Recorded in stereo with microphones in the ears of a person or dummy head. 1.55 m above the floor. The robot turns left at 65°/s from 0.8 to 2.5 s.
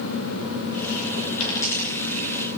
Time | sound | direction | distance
1.4 | a dropped coin | 30° left (ahead or behind) | 6 m